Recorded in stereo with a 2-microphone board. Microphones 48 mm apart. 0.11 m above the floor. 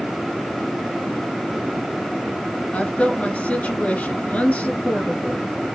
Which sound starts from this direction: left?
A woman speaking, at 2.7 s.